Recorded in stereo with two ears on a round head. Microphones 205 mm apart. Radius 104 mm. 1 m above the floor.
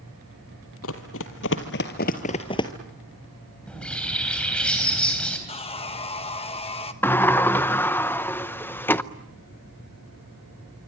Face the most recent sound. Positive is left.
turn(degrees=10)  # may be behind; listen again after turning